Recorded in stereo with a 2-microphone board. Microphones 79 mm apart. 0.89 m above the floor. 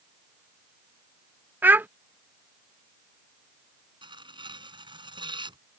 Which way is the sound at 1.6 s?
25° right (ahead or behind).